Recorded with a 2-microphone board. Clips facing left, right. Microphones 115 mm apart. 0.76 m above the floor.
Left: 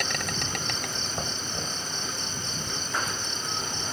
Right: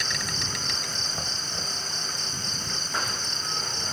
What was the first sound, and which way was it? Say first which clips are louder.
An insect: left 2 dB; 55° left (ahead or behind).